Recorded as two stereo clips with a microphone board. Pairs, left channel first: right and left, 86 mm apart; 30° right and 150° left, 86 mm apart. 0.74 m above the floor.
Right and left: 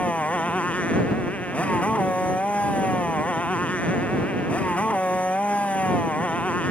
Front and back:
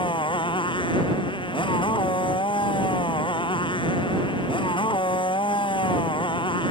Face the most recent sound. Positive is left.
turn(degrees=-15)